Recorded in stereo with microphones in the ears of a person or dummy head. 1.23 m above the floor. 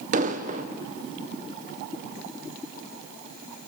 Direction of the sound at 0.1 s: 35° right (ahead or behind).